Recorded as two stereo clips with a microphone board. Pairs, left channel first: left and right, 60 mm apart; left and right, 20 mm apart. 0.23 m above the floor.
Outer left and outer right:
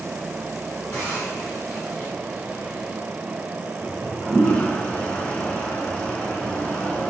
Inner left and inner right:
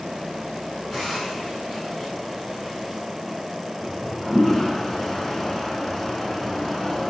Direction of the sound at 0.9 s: 35° left (ahead or behind).